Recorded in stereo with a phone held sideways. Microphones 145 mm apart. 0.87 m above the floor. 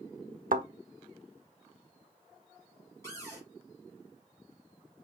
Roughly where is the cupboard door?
Centre.